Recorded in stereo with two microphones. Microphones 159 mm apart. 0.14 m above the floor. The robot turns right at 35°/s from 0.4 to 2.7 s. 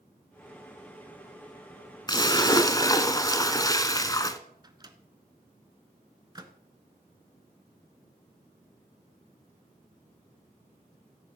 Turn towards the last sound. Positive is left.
turn(degrees=-25)  # may be behind; listen again after turning